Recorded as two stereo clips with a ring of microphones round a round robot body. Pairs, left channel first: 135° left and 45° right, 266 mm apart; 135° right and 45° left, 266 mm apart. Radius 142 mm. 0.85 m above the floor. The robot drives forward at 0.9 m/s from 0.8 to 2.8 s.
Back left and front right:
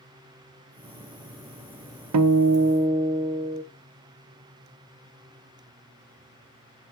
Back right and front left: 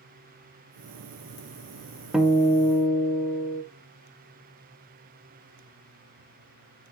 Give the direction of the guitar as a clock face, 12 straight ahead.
1 o'clock.